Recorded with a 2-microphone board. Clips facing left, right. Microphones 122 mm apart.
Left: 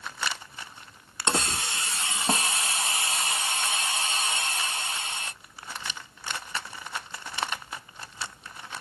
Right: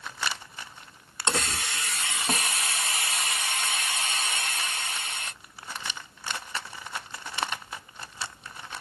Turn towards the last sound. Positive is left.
turn(degrees=25)  # may be behind; listen again after turning